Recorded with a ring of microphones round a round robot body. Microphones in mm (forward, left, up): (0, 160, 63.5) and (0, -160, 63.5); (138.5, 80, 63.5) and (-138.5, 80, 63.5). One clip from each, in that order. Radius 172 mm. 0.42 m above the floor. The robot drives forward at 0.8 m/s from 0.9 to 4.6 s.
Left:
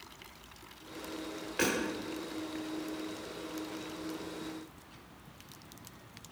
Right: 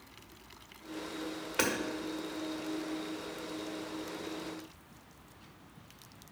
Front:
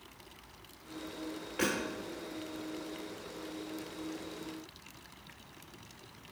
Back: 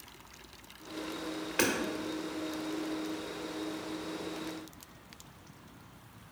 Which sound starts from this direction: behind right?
Hammering, at 1.6 s.